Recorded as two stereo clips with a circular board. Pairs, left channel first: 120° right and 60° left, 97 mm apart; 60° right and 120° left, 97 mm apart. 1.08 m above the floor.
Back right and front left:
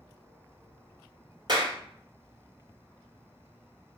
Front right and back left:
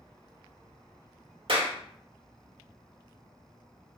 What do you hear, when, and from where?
1.5 s a clap: 100° left, 1.2 m